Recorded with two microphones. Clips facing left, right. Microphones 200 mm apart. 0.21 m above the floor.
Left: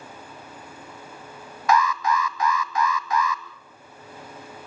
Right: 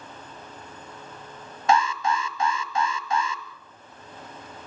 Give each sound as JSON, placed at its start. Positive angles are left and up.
{"t": 1.7, "sound": "an alarm", "side_deg": -25, "distance_m": 1.4}